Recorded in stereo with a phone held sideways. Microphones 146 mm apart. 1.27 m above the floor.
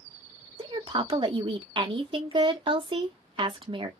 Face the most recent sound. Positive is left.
turn(degrees=-35)  # may be behind; listen again after turning